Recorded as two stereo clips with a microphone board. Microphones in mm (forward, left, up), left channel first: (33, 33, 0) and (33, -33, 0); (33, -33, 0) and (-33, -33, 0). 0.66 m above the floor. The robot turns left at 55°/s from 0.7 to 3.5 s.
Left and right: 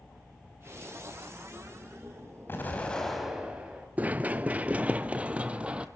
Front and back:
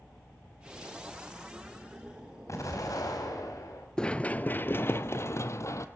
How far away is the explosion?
About 4 m.